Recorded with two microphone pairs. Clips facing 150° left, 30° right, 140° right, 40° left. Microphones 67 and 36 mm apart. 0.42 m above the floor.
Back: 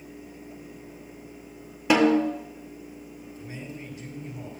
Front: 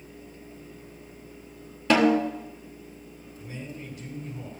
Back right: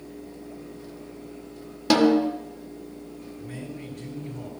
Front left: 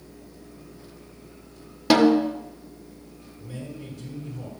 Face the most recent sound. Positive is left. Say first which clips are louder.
# front 1 dB, front left 1 dB
turn(degrees=-155)